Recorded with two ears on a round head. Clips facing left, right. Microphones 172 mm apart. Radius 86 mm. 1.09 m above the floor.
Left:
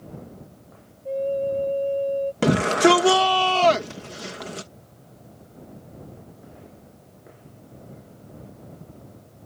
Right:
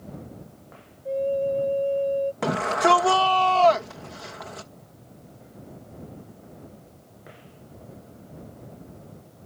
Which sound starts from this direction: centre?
A flute, at 1.1 s.